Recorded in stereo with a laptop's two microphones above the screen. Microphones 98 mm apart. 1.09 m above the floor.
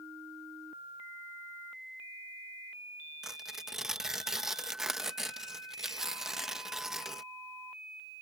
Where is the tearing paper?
5° right (ahead or behind).